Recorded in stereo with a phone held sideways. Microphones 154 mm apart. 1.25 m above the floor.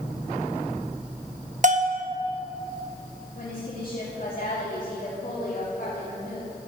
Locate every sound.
1.6 s a bell: 50° right (ahead or behind), 1.0 m
3.4 s a woman speaking: 65° left (ahead or behind), 3 m